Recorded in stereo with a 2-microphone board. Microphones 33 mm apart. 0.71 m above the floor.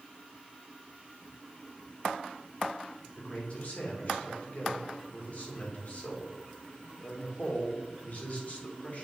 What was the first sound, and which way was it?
A man speaking, 45° left (ahead or behind).